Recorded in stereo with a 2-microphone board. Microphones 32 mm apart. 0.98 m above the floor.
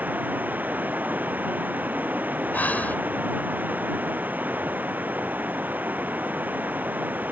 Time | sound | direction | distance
0.0 | running water | 90° right | ?
2.5 | breathing | 75° left (ahead or behind) | ?